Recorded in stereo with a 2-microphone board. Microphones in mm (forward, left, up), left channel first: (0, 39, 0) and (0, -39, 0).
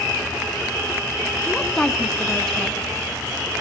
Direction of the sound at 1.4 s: 10° left (ahead or behind).